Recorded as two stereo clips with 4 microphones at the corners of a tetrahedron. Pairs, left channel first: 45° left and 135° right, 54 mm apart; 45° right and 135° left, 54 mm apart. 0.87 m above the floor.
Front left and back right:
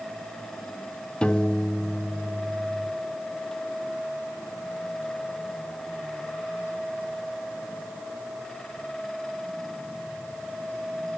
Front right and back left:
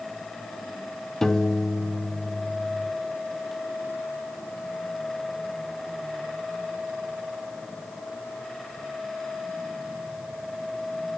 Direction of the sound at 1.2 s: 20° left.